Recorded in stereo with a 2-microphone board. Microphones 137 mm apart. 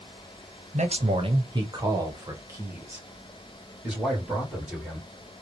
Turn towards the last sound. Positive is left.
turn(degrees=-5)  # may be behind; listen again after turning